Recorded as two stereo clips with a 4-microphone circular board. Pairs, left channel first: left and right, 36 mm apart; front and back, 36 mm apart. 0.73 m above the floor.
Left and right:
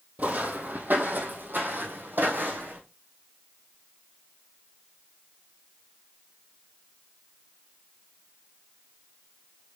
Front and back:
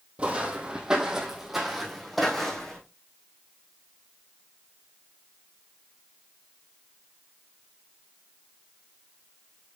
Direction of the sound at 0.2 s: 125° right.